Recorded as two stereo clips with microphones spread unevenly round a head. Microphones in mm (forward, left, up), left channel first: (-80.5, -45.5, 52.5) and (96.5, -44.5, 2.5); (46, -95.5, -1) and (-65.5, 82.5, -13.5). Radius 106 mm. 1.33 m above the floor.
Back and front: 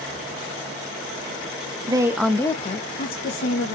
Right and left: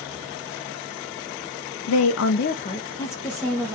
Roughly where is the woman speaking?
Ahead right.